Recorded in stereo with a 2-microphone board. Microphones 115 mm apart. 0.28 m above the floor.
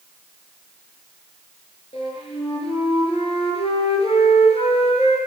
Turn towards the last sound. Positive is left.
turn(degrees=65)  # may be behind; listen again after turning